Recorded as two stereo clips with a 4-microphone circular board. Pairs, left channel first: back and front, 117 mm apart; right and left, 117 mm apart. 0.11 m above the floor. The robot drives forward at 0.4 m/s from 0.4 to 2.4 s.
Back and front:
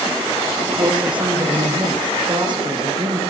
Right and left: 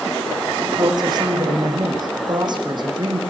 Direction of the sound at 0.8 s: 40° left.